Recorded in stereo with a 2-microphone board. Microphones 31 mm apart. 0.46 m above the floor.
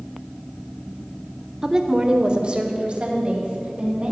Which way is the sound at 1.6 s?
20° right (ahead or behind).